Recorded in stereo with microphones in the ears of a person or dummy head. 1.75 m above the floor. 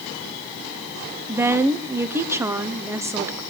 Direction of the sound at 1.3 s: 15° right (ahead or behind).